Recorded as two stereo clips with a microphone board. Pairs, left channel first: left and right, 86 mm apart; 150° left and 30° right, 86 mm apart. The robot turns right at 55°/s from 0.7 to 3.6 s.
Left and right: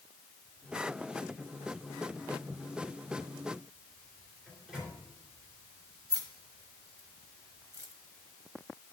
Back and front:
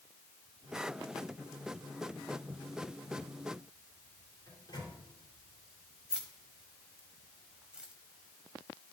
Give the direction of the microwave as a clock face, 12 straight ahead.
6 o'clock.